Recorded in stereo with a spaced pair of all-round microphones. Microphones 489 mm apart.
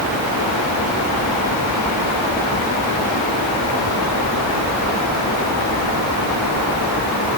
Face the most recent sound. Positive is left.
No sound to turn to.